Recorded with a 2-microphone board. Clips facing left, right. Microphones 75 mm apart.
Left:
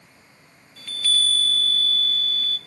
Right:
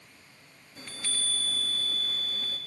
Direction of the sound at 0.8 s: 25° right (ahead or behind).